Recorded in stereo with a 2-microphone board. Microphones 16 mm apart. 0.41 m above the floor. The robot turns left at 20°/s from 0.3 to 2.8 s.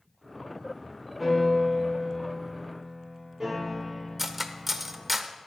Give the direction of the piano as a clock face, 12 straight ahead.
12 o'clock.